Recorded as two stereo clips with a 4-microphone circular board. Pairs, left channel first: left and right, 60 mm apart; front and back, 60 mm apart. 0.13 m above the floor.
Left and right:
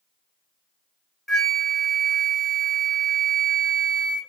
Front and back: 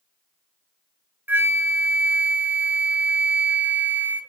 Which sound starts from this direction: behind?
A flute, at 1.3 s.